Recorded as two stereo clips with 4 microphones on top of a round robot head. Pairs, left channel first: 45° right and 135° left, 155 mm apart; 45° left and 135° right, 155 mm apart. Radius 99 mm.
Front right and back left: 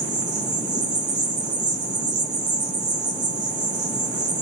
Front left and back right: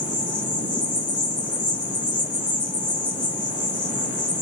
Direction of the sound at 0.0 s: 90° left.